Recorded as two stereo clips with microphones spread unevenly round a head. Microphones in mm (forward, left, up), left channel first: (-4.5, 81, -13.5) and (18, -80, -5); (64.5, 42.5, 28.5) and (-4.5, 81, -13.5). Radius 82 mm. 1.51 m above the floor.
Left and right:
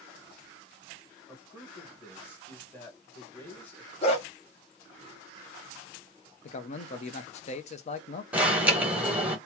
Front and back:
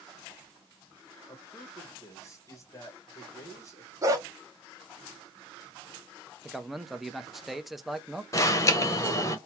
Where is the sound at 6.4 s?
50° left, 0.7 m.